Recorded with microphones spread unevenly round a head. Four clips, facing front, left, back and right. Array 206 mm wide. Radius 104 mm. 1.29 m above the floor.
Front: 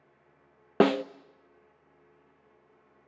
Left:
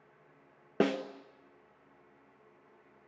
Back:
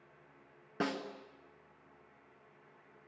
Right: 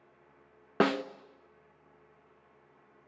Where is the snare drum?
10° left, 0.6 m.